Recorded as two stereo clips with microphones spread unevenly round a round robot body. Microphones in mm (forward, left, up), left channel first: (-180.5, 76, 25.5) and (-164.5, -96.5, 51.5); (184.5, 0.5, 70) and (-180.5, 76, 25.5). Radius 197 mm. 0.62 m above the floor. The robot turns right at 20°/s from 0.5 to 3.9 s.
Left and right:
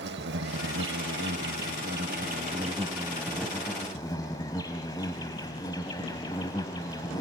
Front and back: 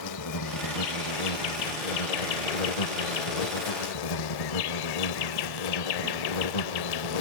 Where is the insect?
55° right, 0.8 m; by 7.2 s 10° left, 0.8 m.